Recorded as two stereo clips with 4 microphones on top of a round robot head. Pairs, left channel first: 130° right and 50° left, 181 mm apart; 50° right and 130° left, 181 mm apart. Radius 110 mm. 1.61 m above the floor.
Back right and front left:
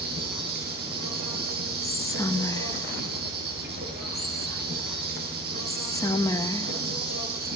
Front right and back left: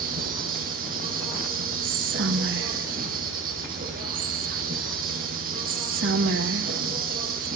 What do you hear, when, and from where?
0.0 s an insect: 90° left, 9.5 m
1.8 s whispering: 155° left, 2 m